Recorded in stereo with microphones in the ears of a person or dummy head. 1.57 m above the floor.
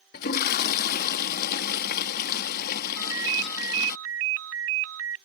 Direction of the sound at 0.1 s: 50° left (ahead or behind).